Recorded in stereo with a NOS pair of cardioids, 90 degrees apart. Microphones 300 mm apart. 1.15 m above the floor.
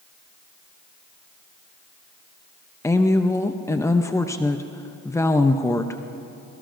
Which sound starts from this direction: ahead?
A woman speaking, at 2.8 s.